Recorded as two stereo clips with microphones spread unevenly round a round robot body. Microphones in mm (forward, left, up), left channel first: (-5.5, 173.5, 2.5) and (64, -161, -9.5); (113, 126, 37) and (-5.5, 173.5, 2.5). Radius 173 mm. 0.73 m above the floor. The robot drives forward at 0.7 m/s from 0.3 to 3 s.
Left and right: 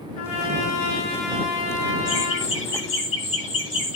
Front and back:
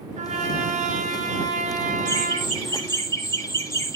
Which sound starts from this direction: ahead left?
Laughter, at 2.0 s.